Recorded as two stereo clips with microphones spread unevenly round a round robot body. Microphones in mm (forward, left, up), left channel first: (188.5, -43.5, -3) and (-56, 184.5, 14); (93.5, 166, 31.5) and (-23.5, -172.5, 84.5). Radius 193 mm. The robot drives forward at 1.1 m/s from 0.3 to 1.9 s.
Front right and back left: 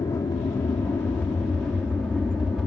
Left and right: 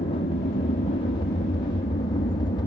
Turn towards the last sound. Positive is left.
turn(degrees=45)